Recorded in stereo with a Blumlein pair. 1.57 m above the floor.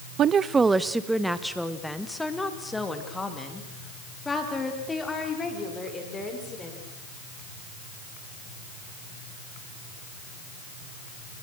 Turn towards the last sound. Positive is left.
turn(degrees=15)